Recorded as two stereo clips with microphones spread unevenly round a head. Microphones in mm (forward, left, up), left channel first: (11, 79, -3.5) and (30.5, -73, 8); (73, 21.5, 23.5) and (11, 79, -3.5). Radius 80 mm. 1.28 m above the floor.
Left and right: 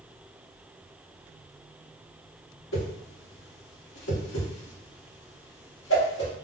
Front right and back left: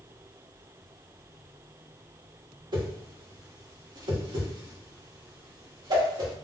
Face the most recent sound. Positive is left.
turn(degrees=105)